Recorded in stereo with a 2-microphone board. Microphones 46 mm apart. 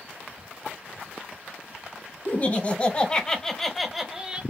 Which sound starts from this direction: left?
Laughter, at 2.2 s.